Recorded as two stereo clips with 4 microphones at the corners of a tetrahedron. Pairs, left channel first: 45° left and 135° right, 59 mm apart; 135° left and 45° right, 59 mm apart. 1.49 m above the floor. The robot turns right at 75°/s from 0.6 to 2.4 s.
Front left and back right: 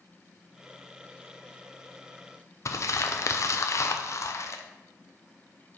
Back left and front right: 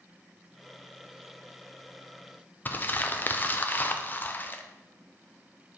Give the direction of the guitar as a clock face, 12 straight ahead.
No guitar in this recording.